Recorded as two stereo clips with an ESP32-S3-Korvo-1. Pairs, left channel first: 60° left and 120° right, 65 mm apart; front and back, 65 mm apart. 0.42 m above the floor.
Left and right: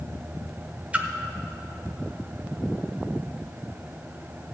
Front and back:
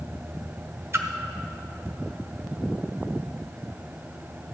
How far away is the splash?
About 1.0 m.